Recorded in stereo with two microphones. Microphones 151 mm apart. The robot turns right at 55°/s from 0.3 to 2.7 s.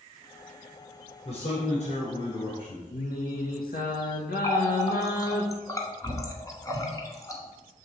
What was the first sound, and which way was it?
A man speaking, 55° left.